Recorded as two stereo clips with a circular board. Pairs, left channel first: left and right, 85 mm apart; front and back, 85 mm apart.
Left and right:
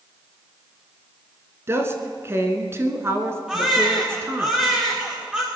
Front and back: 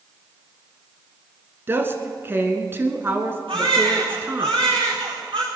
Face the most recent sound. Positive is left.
turn(degrees=-170)